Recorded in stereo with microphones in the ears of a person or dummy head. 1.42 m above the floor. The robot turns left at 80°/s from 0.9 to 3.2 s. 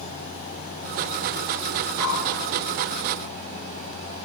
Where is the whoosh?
70° left (ahead or behind), 0.9 m; by 2.3 s 45° left (ahead or behind), 0.9 m.